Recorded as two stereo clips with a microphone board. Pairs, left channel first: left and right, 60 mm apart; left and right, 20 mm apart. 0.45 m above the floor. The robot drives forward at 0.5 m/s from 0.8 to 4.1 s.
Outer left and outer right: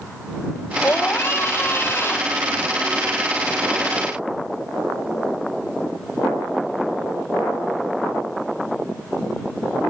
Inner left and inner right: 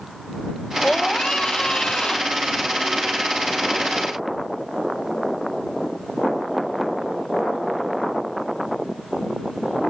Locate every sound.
0.8 s a scream: 40° left (ahead or behind)